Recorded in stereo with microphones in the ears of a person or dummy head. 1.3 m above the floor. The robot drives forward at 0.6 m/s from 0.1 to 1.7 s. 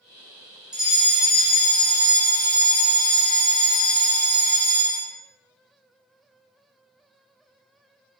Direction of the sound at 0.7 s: Centre (ahead or behind).